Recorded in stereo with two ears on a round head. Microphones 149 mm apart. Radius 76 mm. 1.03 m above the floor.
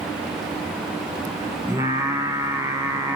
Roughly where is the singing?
Centre.